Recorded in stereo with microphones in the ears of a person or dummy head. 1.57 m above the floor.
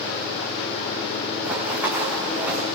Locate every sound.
1.4 s running footsteps: 10° right (ahead or behind), 4 m; by 2.6 s 5° right (ahead or behind), 4.5 m